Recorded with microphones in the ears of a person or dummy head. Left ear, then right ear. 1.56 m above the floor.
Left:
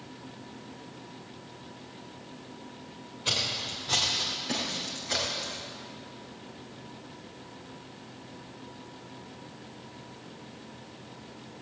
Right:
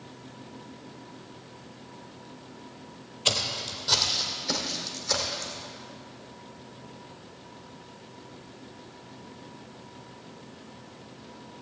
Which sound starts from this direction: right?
Footsteps, at 3.2 s.